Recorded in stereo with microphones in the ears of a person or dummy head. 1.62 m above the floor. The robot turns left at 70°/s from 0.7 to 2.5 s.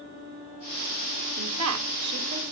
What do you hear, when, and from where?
1.4 s a woman speaking: 75° right, 1.9 m; by 2.5 s 155° right, 1.9 m